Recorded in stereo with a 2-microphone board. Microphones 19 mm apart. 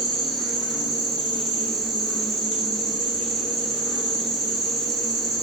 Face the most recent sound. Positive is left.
turn(degrees=50)  # may be behind; listen again after turning